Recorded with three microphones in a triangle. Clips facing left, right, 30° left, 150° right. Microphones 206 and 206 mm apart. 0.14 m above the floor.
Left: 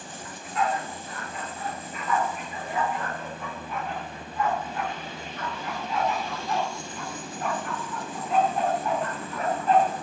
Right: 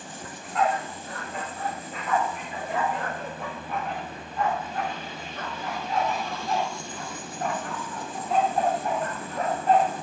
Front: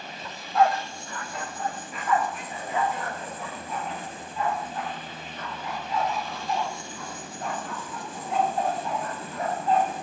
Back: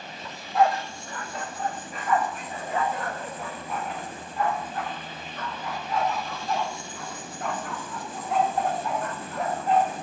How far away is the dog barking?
About 2 m.